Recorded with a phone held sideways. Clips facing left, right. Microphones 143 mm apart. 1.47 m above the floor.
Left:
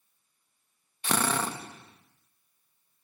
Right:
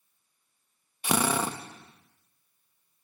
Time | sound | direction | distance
1.0 | a drill | 10° right (ahead or behind) | 0.8 m